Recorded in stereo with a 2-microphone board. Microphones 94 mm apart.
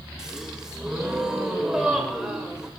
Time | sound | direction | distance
0.2 | a gasp | 5° right (ahead or behind) | 1.8 m